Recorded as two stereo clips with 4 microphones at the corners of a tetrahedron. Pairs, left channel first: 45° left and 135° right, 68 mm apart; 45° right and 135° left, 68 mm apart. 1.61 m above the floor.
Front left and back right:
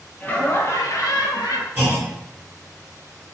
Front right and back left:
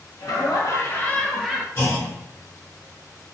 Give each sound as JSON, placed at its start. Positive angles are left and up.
{"t": 0.2, "sound": "laughter", "azimuth_deg": -25, "distance_m": 1.0}
{"t": 1.8, "sound": "a clunk", "azimuth_deg": -65, "distance_m": 1.7}